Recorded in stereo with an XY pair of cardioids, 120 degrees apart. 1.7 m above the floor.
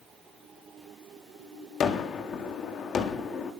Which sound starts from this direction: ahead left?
A gunshot, at 1.8 s.